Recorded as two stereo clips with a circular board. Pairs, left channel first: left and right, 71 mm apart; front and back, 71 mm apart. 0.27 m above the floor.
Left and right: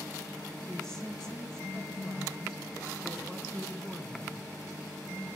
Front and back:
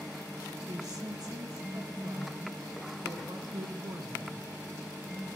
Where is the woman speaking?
170° left, 2 m.